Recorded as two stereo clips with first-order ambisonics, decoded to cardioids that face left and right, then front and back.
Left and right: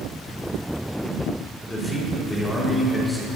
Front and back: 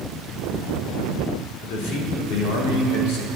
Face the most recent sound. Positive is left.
turn(degrees=10)